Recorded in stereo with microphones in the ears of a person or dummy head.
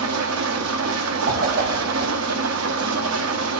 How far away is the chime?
I don't hear a chime.